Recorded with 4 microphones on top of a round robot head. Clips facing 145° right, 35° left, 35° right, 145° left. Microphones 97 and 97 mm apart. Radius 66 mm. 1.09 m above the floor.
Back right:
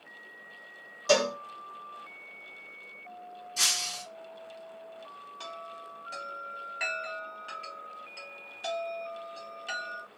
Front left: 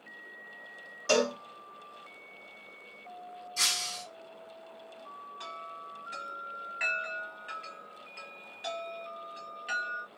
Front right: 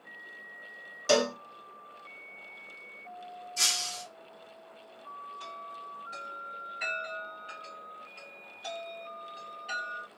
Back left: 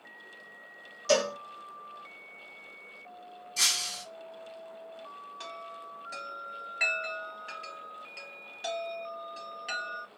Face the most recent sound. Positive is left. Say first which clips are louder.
# back right 2 dB, even
turn(degrees=155)